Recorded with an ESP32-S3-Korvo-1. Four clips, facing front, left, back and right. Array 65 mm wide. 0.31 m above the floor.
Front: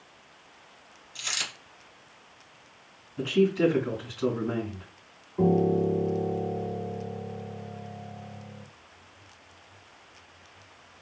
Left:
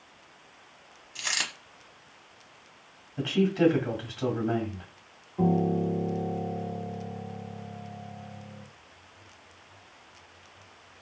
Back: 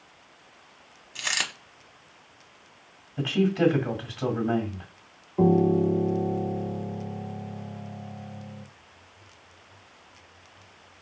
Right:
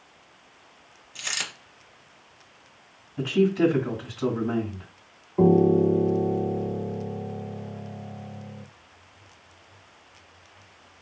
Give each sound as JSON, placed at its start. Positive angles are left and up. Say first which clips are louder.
{"t": 1.1, "sound": "a dropped coin", "louder": "left 1 dB, back 6 dB", "azimuth_deg": 160, "distance_m": 0.9}
{"t": 3.2, "sound": "a man speaking", "louder": "right 3 dB, even", "azimuth_deg": 150, "distance_m": 1.8}
{"t": 5.4, "sound": "a piano", "louder": "right 8 dB, back 2 dB", "azimuth_deg": -105, "distance_m": 0.6}